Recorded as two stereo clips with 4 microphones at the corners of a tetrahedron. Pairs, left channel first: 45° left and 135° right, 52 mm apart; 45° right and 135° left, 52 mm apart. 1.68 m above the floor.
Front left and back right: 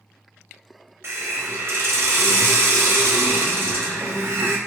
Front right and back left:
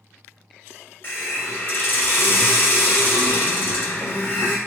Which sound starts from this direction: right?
A hiss, at 1.0 s.